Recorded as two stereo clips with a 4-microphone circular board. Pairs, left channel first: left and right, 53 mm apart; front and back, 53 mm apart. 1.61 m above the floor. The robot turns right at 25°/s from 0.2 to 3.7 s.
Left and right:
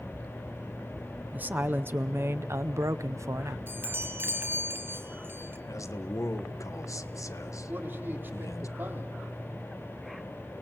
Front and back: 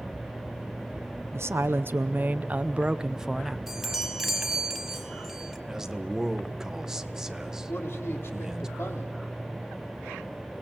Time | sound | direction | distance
1.3 | a woman speaking | 150° right | 0.7 m
3.7 | a chime | 95° right | 1.9 m
5.7 | a man speaking | 100° left | 1.4 m
7.7 | a man speaking | 40° right | 3.5 m